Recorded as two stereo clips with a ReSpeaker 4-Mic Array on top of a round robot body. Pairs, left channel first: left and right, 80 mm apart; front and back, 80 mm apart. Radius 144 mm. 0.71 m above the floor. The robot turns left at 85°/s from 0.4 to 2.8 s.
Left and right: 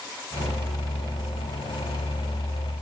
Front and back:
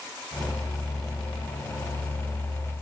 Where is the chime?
I don't hear a chime.